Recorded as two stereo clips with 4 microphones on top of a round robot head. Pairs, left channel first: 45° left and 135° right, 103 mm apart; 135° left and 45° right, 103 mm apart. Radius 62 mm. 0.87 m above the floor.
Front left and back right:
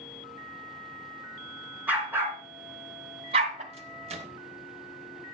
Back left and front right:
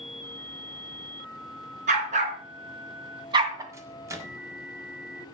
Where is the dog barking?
55° right, 3.5 m; by 3.6 s 105° right, 2 m.